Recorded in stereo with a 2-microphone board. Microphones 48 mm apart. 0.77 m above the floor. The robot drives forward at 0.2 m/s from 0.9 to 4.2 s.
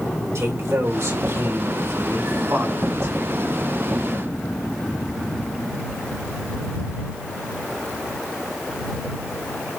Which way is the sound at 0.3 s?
70° right (ahead or behind).